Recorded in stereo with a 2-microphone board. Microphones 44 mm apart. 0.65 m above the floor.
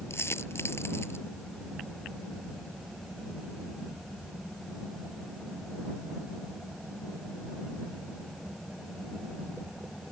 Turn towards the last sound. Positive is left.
turn(degrees=85)